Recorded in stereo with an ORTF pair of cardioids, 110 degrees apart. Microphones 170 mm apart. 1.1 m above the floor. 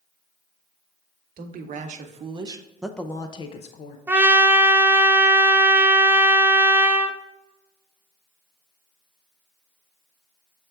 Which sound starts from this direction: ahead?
A trumpet, at 4.1 s.